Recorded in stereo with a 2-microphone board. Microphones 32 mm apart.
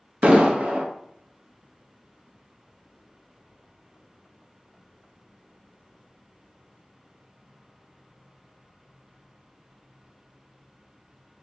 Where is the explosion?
40° right (ahead or behind), 0.6 m.